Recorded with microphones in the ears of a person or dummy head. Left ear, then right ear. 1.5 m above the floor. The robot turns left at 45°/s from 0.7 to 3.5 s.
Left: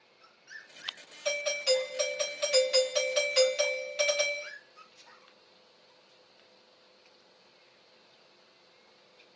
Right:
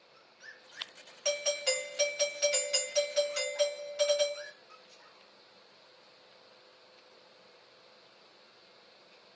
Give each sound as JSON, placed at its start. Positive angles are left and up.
{"t": 1.2, "sound": "a doorbell", "azimuth_deg": -120, "distance_m": 1.5}